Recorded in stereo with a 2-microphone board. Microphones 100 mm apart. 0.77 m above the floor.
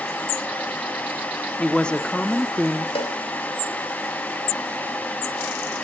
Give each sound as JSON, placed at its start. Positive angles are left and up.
{"t": 1.6, "sound": "a woman speaking", "side_deg": 10, "distance_m": 1.2}
{"t": 3.0, "sound": "a cowbell", "side_deg": 70, "distance_m": 2.5}